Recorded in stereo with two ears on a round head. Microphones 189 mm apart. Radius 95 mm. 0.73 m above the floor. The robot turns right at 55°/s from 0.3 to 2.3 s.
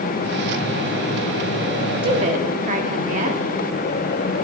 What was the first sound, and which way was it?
A woman speaking, 25° right (ahead or behind).